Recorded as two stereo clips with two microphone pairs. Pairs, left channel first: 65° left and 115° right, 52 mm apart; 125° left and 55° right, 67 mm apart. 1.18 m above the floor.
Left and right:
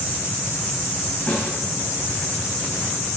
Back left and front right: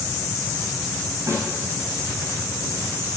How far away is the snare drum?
About 4.5 m.